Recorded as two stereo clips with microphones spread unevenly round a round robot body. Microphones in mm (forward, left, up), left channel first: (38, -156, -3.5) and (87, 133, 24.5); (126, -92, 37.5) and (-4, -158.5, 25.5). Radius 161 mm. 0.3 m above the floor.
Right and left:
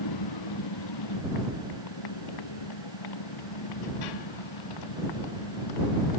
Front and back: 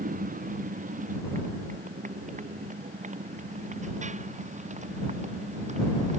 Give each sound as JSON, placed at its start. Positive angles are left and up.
{"t": 0.0, "sound": "a motorcycle", "azimuth_deg": -130}